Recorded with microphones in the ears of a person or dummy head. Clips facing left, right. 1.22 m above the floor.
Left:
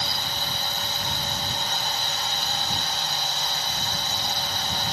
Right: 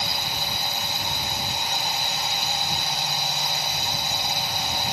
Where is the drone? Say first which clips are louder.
Right 1 dB; 15° right (ahead or behind).